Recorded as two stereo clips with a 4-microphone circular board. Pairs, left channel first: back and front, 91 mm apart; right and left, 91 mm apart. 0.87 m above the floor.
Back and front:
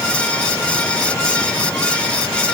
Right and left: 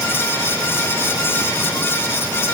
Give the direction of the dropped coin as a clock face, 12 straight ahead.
I don't hear a dropped coin.